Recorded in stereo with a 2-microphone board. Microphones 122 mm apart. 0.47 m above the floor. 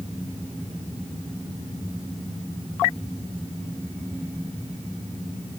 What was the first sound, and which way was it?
Only background noise.